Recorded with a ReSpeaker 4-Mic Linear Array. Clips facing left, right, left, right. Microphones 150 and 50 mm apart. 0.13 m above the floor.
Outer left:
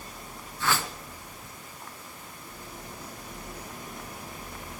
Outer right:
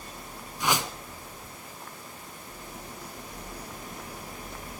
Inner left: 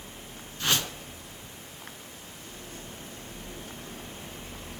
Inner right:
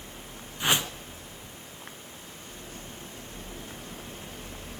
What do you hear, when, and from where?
0.6 s a whoosh: 15° right (ahead or behind), 1.4 m